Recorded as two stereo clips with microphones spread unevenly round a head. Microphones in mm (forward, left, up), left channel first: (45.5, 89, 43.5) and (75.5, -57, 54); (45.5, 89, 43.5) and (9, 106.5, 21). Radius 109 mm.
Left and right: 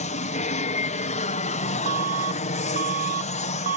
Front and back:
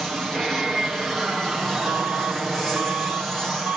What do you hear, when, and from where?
0.0 s an aircraft: 85° left
1.9 s an alarm: 130° right